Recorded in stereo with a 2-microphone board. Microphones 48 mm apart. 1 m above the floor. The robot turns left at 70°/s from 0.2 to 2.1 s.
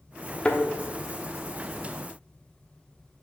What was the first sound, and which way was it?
A thud, 20° left (ahead or behind).